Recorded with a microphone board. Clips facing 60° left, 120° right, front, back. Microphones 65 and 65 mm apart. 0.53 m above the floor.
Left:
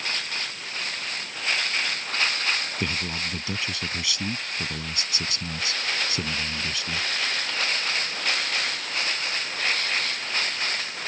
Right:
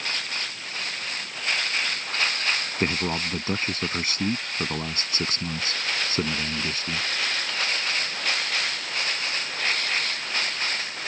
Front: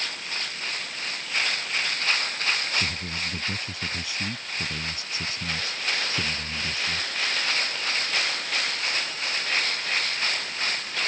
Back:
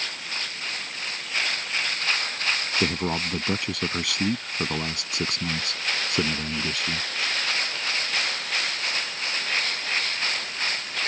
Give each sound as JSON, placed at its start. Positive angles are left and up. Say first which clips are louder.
{"t": 2.8, "sound": "a man speaking", "louder": "right 4 dB, back 6 dB", "azimuth_deg": -170}